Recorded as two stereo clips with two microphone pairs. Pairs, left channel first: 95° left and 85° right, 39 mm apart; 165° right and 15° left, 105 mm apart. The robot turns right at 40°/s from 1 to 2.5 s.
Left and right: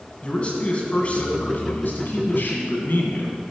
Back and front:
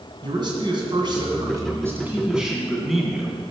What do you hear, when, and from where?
0.2 s a man speaking: 40° left, 2.0 m; by 3.4 s 100° left, 2.0 m